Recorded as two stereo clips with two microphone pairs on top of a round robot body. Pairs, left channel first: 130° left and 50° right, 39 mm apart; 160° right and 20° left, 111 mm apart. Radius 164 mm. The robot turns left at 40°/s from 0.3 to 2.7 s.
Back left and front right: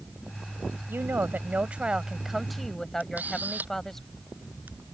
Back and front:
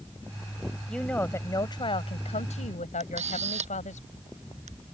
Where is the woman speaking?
75° right; by 4.0 s 145° right.